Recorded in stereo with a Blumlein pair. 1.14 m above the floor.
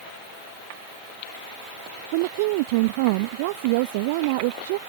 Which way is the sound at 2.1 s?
50° right.